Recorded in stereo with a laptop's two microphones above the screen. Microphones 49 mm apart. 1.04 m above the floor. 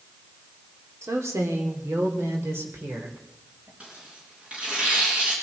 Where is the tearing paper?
25° right (ahead or behind), 4.5 m.